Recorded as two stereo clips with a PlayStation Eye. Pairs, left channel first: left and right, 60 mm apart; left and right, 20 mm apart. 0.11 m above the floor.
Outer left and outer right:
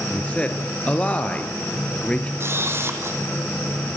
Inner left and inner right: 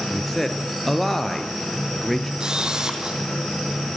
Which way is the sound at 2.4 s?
40° right (ahead or behind).